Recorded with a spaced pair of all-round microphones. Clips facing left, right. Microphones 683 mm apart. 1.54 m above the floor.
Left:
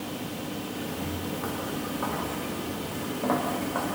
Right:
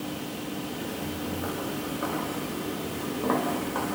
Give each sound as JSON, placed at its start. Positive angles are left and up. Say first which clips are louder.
{"t": 0.8, "sound": "footsteps", "louder": "even", "side_deg": 35, "distance_m": 6.0}